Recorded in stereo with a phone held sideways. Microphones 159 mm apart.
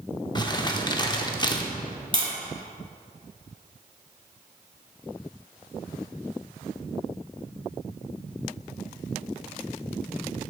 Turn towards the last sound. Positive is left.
turn(degrees=-30)  # may be behind; listen again after turning